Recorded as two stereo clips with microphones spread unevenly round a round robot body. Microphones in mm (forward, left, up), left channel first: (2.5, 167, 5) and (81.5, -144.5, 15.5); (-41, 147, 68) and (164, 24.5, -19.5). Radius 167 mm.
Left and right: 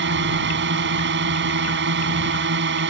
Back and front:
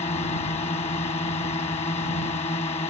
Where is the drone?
135° right.